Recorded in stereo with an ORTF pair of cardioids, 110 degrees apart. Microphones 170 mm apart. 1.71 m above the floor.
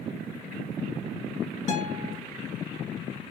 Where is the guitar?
45° left, 1.7 m.